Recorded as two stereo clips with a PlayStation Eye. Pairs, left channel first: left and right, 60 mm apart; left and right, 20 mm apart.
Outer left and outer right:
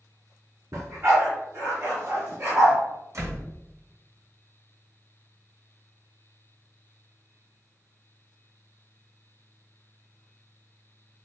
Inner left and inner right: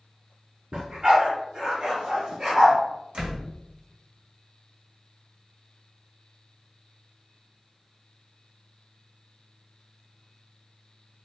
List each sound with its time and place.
0.7 s a dog barking: 65° right (ahead or behind), 1.9 m; by 2.8 s 50° right (ahead or behind), 3 m
3.1 s a door slam: 60° right (ahead or behind), 1.3 m